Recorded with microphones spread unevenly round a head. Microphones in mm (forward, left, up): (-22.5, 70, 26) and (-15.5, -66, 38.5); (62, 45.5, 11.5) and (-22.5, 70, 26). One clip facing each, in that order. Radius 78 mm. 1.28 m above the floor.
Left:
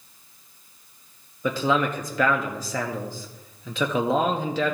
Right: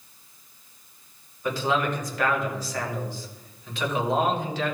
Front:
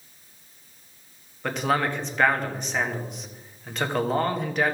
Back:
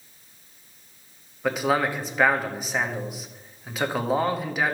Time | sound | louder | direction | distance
1.4 | a man speaking | left 2 dB, back 2 dB | 80° left | 1.6 m